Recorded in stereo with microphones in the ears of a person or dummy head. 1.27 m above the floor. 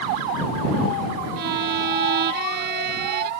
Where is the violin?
55° right (ahead or behind).